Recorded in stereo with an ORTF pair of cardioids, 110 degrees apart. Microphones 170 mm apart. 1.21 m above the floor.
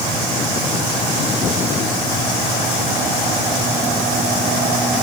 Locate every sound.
Only background noise.